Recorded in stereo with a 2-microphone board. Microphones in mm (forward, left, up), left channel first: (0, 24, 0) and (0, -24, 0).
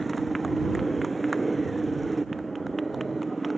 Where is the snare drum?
No snare drum in this recording.